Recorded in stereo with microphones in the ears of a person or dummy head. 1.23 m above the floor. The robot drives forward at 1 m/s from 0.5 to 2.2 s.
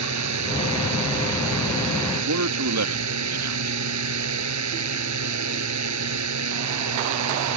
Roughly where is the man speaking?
Right.